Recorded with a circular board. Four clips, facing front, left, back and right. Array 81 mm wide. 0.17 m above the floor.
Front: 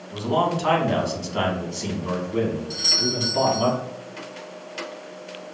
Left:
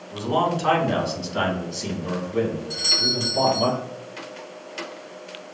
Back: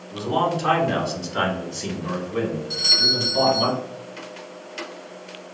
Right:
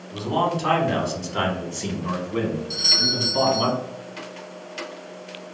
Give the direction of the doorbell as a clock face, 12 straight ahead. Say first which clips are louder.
Even, even; 9 o'clock.